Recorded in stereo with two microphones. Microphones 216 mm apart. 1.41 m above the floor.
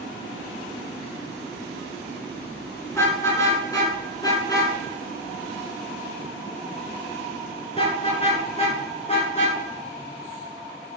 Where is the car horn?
15° left (ahead or behind), 8.5 m; by 9.6 s 30° left (ahead or behind), 10.5 m.